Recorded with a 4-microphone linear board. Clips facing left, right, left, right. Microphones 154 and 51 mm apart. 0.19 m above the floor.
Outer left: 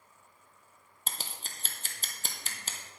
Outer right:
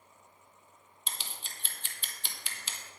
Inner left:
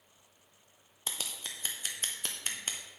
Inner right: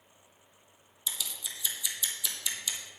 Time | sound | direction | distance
1.1 | scissors | 50° left (ahead or behind) | 1.0 m